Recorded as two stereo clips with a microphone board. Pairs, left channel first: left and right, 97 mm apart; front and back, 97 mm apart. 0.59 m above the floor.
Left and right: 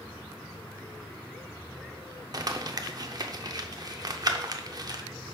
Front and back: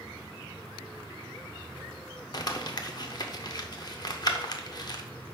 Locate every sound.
2.3 s crumpling: 45° right, 0.6 m